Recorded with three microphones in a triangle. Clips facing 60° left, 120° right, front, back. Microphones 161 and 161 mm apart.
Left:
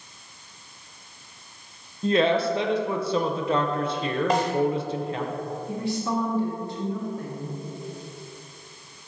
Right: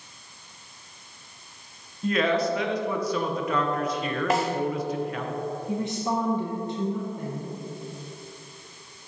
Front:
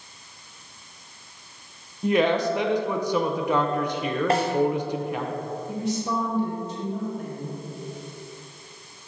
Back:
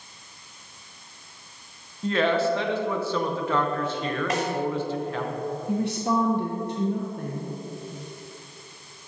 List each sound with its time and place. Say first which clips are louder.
2.0 s a woman speaking: left 3 dB, front 2 dB; 60° left, 0.7 m
4.3 s a snare drum: even, front 5 dB; 35° right, 1.0 m
5.7 s a woman speaking: left 1 dB, back 3 dB; 175° left, 0.8 m